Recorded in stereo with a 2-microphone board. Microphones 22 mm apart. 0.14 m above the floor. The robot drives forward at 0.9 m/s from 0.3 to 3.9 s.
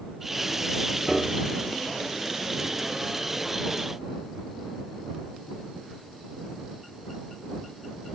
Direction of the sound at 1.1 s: 15° right (ahead or behind).